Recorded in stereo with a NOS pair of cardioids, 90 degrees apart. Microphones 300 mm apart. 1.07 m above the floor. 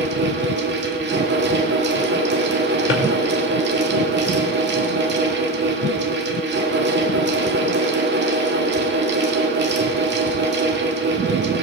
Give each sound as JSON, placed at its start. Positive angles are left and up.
{"t": 0.0, "sound": "a fan", "azimuth_deg": -40, "distance_m": 1.6}
{"t": 2.9, "sound": "a drawer", "azimuth_deg": 45, "distance_m": 2.0}